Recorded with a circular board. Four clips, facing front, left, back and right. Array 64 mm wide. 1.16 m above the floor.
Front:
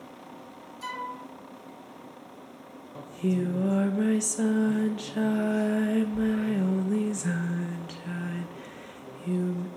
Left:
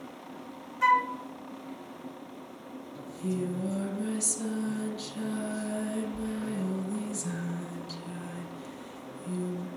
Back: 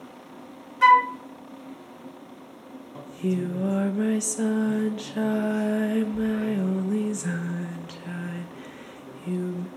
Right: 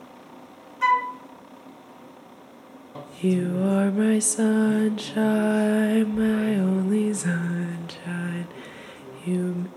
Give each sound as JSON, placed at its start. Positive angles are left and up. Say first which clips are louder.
{"t": 0.8, "sound": "a flute", "louder": "right 3 dB, back 20 dB", "azimuth_deg": -175, "distance_m": 0.8}
{"t": 3.0, "sound": "singing", "louder": "right 9 dB, even", "azimuth_deg": -90, "distance_m": 1.0}